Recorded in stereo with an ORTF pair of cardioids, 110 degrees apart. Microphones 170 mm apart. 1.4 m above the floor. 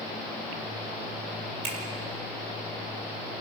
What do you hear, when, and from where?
1.6 s a finger snap: 40° right, 4.5 m